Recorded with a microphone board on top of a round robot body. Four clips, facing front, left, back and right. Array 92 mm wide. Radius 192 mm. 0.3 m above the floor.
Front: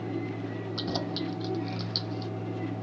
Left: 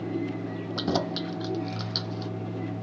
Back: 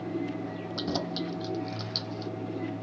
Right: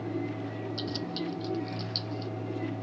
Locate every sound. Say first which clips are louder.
0.8 s keys jangling: left 10 dB, back 1 dB; 95° left